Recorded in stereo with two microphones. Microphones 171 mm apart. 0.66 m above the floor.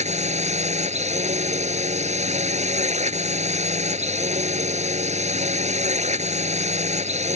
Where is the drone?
40° right (ahead or behind).